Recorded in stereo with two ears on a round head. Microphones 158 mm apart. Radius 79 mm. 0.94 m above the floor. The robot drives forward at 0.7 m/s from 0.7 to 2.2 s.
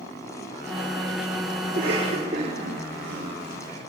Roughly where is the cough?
Right.